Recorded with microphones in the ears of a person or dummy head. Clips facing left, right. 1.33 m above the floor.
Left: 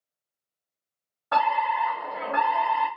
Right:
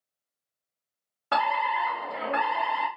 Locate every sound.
1.3 s a fire alarm: 35° right (ahead or behind), 1.0 m